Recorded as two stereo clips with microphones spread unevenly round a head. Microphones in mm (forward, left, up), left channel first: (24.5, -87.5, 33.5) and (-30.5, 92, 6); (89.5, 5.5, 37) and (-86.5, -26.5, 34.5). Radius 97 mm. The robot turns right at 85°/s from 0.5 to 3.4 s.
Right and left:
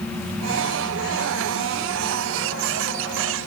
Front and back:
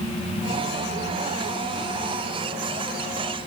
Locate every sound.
Only background noise.